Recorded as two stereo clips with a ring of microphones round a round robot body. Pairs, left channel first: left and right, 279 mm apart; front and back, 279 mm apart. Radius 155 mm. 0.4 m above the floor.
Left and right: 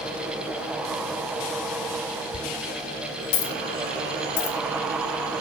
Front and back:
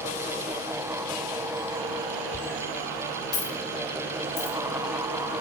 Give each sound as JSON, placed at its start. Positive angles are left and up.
{"t": 2.3, "sound": "a dropped coin", "azimuth_deg": 90, "distance_m": 0.9}